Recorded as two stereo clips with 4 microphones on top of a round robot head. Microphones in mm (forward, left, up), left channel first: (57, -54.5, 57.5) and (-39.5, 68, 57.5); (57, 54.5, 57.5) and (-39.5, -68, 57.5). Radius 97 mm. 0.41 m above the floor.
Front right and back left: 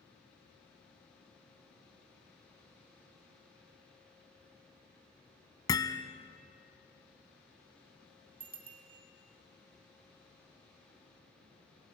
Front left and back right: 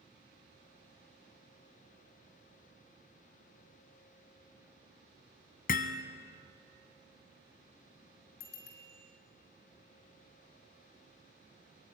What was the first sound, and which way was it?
Hammering, 15° left.